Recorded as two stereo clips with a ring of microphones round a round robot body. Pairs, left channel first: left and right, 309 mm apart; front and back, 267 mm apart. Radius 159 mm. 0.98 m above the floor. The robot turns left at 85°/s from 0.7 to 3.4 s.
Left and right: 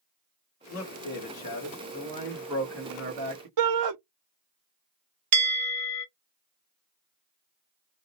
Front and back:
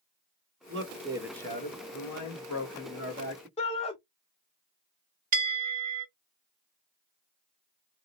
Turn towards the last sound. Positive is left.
turn(degrees=-115)